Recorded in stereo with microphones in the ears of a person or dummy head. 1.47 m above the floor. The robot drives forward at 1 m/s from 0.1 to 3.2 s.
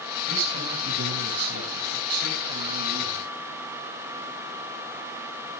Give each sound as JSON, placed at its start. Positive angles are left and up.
{"t": 0.3, "sound": "a man speaking", "side_deg": -75, "distance_m": 6.0}